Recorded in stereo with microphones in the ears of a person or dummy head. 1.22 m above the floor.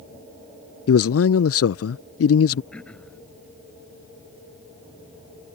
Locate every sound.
0.9 s a man speaking: 65° left (ahead or behind)
2.7 s throat clearing: 5° left (ahead or behind)